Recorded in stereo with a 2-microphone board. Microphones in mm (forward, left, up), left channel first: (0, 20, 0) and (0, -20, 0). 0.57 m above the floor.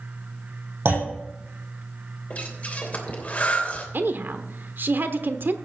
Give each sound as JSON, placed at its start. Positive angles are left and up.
{"t": 0.8, "sound": "a clunk", "side_deg": -70, "distance_m": 5.5}
{"t": 2.3, "sound": "breathing", "side_deg": 40, "distance_m": 3.0}
{"t": 3.9, "sound": "a woman speaking", "side_deg": -60, "distance_m": 1.1}